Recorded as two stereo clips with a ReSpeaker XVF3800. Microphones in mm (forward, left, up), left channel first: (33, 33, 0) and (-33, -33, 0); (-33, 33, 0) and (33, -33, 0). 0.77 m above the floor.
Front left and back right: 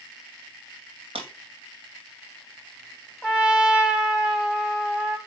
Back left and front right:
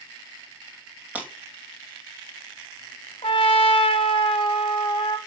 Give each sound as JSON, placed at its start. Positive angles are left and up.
{"t": 1.1, "sound": "breaking glass", "azimuth_deg": -120, "distance_m": 2.0}
{"t": 3.2, "sound": "a trumpet", "azimuth_deg": 140, "distance_m": 1.4}